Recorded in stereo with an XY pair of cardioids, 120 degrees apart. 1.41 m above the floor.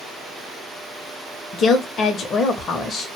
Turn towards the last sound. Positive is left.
turn(degrees=45)